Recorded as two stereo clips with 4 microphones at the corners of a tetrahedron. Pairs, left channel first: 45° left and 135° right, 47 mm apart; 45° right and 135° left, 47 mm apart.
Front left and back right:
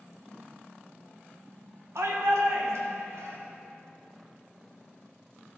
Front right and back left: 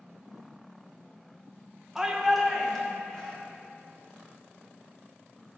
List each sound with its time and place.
1.9 s a shout: 145° right, 1.2 m; by 3.4 s 120° right, 2.5 m